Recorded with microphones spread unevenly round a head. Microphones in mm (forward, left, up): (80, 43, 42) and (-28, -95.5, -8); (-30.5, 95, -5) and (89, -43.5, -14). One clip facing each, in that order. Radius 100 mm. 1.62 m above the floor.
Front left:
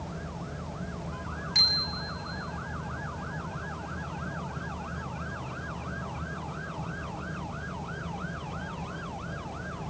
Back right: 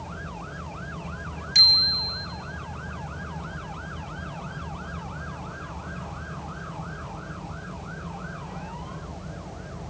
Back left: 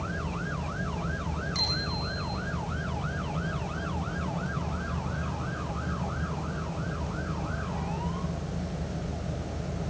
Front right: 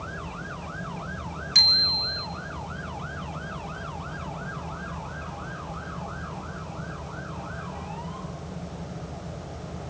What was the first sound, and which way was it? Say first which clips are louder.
A bicycle bell: even, back left 3 dB; 70° right.